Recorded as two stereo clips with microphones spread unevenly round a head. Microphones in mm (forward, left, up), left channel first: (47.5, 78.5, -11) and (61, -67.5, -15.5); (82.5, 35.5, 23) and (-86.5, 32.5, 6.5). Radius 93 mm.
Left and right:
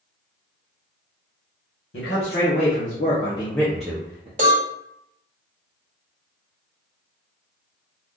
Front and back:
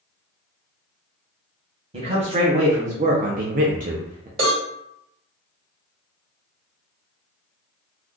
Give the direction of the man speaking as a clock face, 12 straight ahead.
8 o'clock.